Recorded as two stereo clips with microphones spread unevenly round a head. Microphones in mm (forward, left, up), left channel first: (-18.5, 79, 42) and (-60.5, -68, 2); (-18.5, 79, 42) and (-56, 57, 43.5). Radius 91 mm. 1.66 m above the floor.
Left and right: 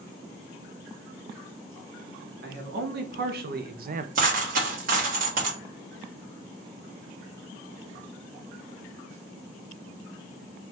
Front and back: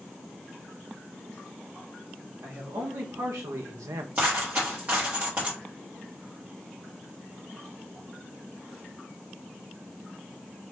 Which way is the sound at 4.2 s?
110° right.